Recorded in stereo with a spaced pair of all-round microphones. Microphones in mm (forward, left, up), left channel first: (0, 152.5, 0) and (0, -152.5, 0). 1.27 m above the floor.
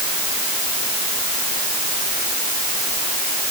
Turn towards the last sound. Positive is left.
No sound to turn to.